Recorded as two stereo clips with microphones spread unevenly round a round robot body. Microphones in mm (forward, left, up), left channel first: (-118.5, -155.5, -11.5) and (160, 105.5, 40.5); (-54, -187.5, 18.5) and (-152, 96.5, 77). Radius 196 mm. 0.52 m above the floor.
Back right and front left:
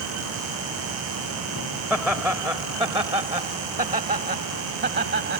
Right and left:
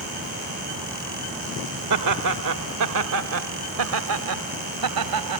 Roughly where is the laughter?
Behind left.